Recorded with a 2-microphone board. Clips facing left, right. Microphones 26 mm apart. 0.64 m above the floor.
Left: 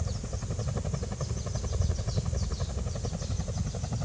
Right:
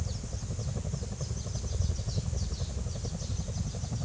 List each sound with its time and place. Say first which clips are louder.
0.0 s a helicopter: left 3 dB; 60° left (ahead or behind); by 4.1 s 40° left (ahead or behind)